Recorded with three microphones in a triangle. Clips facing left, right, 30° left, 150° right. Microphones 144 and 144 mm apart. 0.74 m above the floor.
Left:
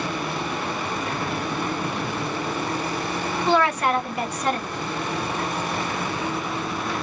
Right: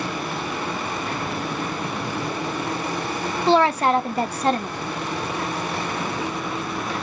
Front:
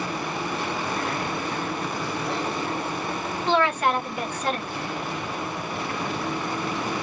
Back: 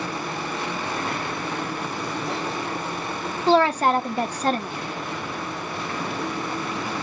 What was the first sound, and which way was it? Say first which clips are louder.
A woman speaking: right 4 dB, back 4 dB; 130° right.